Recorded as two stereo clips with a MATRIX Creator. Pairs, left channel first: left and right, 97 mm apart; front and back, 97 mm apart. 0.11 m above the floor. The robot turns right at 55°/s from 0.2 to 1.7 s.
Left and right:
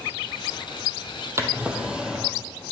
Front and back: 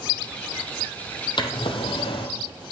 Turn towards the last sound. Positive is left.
turn(degrees=-10)